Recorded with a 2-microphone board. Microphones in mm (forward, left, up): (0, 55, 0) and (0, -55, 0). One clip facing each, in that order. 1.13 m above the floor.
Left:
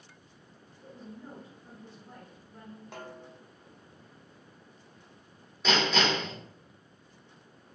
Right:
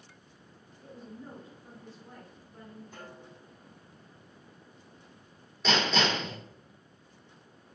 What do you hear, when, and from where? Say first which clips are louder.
0.8 s a woman speaking: even; 15° left (ahead or behind), 2 m
2.9 s a snare drum: left 3 dB; 75° left (ahead or behind), 0.7 m
5.6 s hammering: left 1 dB; centre (ahead or behind), 2 m